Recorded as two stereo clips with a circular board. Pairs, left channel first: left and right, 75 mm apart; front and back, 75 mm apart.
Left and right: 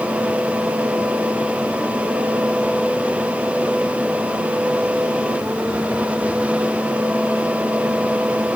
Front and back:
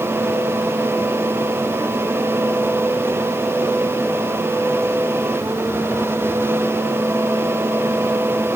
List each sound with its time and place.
Only background noise.